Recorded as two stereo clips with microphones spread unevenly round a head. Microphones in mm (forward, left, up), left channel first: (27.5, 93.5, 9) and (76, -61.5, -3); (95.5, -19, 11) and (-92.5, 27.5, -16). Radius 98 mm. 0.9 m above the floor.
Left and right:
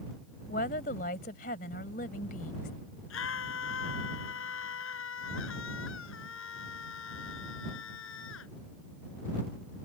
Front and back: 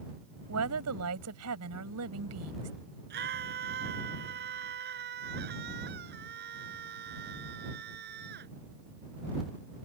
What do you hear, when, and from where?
0.5 s a woman speaking: 160° left
3.1 s a scream: 125° left